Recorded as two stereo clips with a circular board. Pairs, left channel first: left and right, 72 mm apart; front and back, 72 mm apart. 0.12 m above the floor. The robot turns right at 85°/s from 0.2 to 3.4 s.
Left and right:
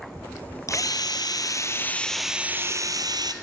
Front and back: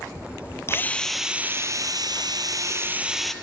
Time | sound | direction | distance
0.7 | a drill | 50° left | 1.1 m